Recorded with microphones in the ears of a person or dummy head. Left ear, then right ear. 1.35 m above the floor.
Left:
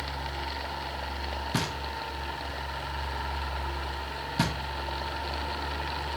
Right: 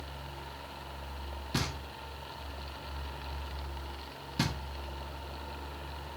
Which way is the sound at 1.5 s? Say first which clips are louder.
Left 2 dB; 10° left (ahead or behind).